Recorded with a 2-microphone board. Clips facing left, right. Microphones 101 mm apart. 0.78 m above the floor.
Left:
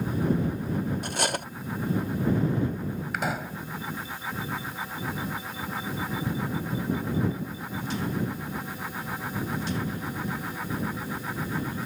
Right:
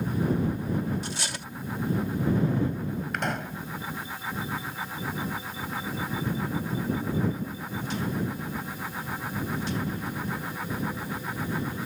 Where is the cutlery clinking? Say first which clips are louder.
Left 6 dB; 60° left (ahead or behind).